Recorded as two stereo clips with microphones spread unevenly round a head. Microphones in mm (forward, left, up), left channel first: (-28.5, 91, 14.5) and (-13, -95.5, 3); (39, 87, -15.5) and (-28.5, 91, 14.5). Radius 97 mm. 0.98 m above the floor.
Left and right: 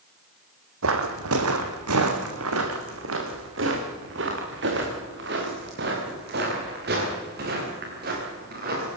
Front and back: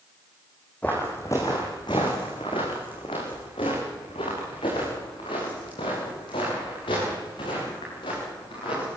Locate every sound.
0.8 s footsteps: 95° right, 2.5 m; by 9.0 s 35° right, 9.5 m